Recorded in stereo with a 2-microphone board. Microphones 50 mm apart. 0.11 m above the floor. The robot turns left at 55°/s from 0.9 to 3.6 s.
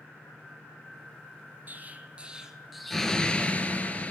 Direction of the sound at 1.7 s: 120° right.